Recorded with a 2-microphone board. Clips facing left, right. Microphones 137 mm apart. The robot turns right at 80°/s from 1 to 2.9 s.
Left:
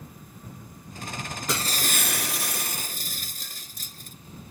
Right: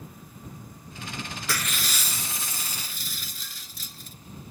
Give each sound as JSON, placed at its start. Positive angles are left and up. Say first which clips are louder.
{"t": 1.5, "sound": "breaking glass", "louder": "left 4 dB", "azimuth_deg": 20}